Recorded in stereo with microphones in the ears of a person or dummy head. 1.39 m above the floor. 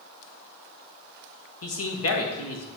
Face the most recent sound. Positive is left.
turn(degrees=70)  # may be behind; listen again after turning